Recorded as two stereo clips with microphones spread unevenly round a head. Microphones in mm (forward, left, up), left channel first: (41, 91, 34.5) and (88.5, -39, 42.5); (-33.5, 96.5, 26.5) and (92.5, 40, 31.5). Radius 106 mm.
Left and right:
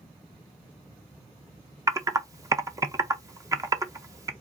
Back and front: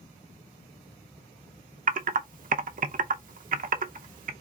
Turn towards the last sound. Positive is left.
turn(degrees=0)